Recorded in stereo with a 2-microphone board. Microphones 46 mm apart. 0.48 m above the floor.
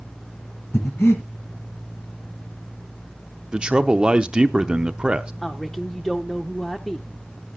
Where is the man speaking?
20° right (ahead or behind), 0.7 m.